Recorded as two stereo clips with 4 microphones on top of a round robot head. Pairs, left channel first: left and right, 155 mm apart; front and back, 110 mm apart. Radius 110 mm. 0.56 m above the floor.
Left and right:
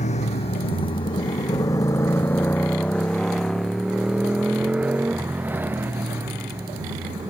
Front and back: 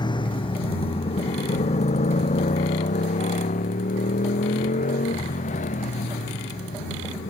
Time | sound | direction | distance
0.0 | a motorcycle | 45° left | ?